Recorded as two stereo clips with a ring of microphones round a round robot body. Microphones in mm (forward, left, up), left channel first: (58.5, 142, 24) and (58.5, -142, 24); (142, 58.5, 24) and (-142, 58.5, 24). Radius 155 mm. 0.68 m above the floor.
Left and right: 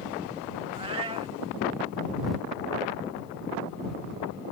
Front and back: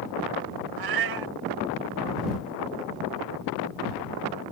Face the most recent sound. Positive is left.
turn(degrees=-165)